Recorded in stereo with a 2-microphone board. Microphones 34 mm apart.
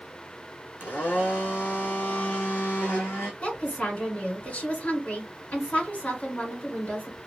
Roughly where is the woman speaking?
Left.